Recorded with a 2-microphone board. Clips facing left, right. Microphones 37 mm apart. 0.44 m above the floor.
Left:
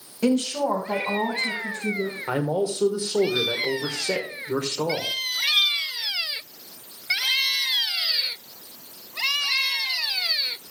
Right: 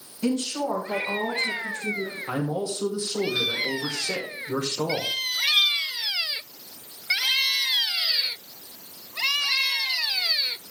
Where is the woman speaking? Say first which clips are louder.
Left 4 dB; 65° left (ahead or behind), 2.5 m; by 2.2 s 75° left (ahead or behind), 4.5 m.